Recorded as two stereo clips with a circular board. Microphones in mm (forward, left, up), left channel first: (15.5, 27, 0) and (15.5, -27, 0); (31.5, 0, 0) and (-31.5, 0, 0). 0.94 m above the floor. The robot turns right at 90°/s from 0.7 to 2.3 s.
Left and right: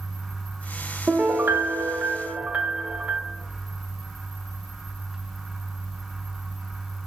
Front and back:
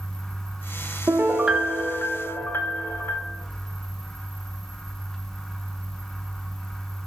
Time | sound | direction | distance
1.1 | a piano | 145° right | 0.6 m